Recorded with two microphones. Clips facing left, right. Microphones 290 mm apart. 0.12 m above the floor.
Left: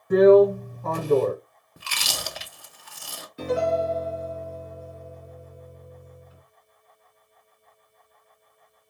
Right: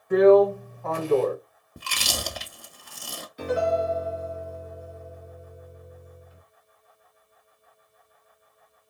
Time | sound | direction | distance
0.1 | a drill | 45° left (ahead or behind) | 1.3 m
1.8 | chewing | 40° right (ahead or behind) | 0.5 m
3.4 | a piano | 25° left (ahead or behind) | 2.0 m